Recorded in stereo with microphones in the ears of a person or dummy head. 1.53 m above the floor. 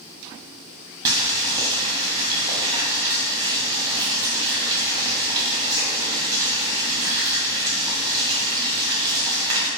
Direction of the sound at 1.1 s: 20° right (ahead or behind).